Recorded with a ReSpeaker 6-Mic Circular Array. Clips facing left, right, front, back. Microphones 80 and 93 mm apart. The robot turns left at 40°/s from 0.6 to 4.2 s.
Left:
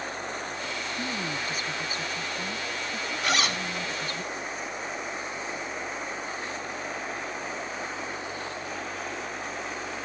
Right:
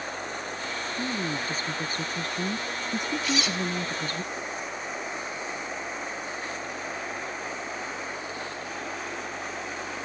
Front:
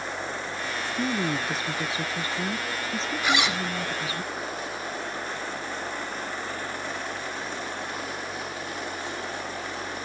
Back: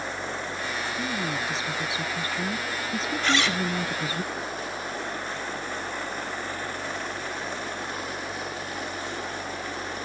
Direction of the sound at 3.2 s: 80° left.